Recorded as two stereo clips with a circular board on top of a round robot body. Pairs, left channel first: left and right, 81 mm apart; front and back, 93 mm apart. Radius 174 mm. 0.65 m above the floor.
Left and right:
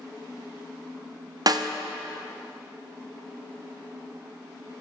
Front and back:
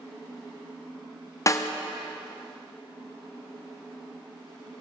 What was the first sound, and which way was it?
A snare drum, 55° right.